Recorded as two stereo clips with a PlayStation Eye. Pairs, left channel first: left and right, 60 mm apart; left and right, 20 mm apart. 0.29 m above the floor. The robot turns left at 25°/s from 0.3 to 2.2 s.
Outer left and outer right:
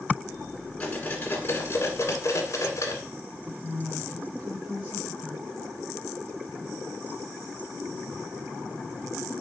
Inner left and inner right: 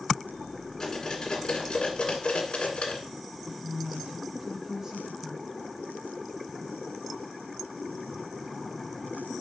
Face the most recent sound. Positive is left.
turn(degrees=-25)  # may be behind; listen again after turning